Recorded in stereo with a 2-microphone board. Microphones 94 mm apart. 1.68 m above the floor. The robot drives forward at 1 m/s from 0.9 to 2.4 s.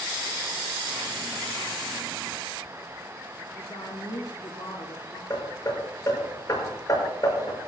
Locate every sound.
3.5 s a woman speaking: 55° left (ahead or behind), 4.5 m
5.3 s hammering: 40° left (ahead or behind), 6.5 m